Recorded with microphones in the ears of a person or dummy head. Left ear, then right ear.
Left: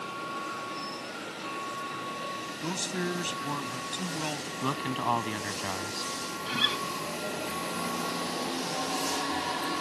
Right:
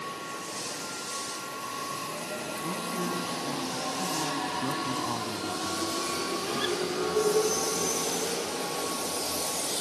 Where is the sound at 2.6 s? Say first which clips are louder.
Left 1 dB; 75° left (ahead or behind).